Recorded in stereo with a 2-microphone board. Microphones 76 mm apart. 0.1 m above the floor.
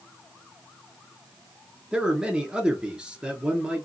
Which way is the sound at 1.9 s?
10° right (ahead or behind).